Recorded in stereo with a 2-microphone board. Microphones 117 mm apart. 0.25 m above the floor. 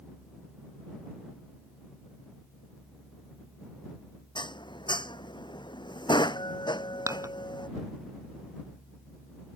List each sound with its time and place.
4.3 s dishes clattering: 45° left (ahead or behind)
7.1 s dishes clattering: 30° right (ahead or behind)